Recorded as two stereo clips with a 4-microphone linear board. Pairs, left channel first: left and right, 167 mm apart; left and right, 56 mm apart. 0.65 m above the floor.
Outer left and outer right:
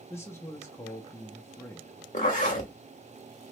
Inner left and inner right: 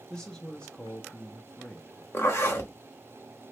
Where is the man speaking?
15° left (ahead or behind), 0.5 m.